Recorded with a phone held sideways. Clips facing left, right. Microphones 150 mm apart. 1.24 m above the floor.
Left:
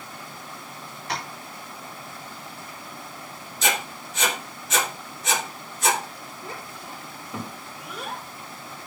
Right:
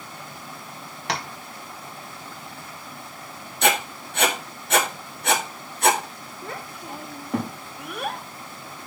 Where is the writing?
60° right (ahead or behind), 1.7 m.